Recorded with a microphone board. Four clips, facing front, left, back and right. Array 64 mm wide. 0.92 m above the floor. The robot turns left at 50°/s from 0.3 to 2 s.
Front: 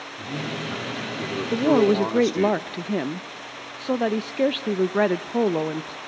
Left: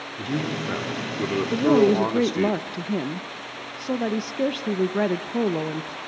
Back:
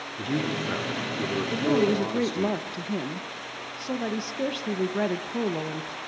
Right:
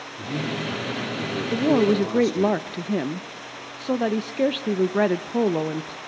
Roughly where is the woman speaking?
Ahead.